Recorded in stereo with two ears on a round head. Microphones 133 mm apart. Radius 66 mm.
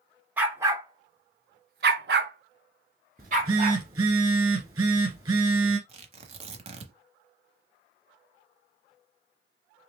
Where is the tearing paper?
45° right (ahead or behind), 0.8 m.